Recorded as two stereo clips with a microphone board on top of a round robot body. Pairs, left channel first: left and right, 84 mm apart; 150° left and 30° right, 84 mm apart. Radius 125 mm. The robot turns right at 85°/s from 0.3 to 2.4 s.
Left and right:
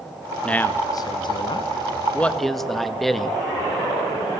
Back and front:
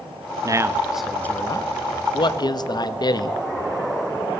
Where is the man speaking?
10° left, 1.6 m; by 3.4 s straight behind, 1.6 m.